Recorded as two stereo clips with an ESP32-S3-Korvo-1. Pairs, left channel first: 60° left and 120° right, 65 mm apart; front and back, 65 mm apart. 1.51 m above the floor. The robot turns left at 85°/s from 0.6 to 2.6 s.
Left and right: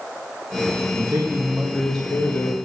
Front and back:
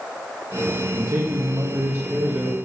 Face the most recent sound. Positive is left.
turn(degrees=85)